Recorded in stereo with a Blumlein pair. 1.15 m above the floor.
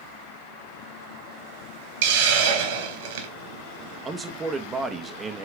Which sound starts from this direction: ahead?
A man speaking, at 4.0 s.